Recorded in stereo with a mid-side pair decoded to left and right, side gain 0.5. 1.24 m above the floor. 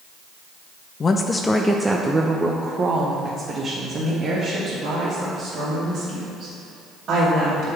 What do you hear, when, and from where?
1.0 s a woman speaking: 40° left, 0.6 m; by 7.7 s 65° right, 3.5 m